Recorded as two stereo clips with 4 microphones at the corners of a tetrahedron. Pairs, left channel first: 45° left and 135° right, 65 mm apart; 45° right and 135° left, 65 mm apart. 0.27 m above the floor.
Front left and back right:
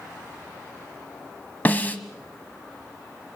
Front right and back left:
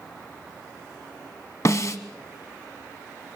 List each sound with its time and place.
1.6 s a snare drum: 15° right, 1.2 m